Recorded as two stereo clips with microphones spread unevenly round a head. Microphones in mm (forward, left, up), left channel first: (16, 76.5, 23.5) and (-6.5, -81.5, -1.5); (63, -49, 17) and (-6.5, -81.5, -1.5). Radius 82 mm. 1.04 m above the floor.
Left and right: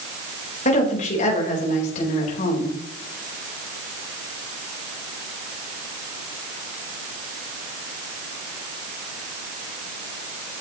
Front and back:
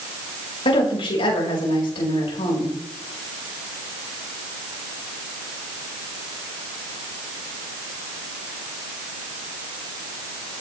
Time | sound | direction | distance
0.7 | a woman speaking | 35° left | 5 m